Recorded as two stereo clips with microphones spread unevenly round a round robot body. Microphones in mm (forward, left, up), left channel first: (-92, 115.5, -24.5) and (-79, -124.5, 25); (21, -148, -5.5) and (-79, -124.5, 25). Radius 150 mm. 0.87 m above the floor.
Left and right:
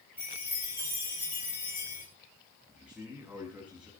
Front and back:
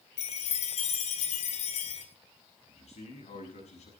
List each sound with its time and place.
0.2 s a chime: straight ahead, 2.5 m
2.7 s a man speaking: straight ahead, 6.5 m